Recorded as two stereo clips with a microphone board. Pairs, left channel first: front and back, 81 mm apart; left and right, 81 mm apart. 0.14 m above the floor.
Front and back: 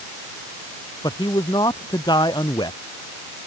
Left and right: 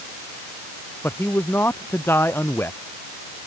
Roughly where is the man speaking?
Ahead left.